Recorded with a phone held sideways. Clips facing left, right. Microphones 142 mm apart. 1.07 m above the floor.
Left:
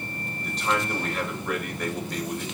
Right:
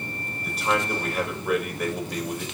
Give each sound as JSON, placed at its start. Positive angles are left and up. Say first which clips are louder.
{"t": 0.4, "sound": "a man speaking", "louder": "right 2 dB", "side_deg": -10, "distance_m": 5.0}